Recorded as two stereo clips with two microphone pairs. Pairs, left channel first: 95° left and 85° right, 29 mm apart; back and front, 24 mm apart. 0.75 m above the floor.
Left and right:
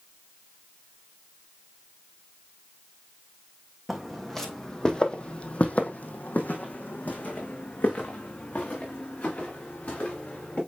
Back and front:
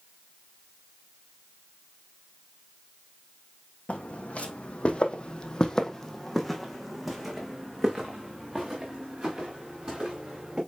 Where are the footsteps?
175° right, 1.7 m; by 10.6 s 60° left, 4.5 m.